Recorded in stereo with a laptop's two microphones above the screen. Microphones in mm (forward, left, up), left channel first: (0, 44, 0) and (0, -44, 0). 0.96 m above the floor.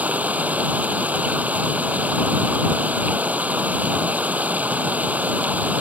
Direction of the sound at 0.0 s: 15° right (ahead or behind).